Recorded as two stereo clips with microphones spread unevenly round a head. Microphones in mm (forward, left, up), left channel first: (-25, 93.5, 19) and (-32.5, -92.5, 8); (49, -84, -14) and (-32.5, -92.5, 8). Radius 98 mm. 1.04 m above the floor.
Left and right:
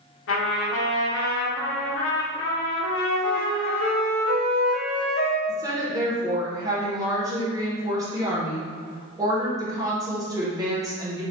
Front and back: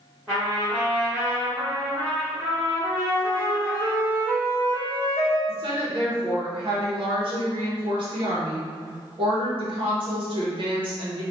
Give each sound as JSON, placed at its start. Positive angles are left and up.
{"t": 0.3, "sound": "a trumpet", "azimuth_deg": 95, "distance_m": 0.8}
{"t": 2.9, "sound": "a flute", "azimuth_deg": 70, "distance_m": 0.7}
{"t": 5.5, "sound": "a woman speaking", "azimuth_deg": -160, "distance_m": 1.2}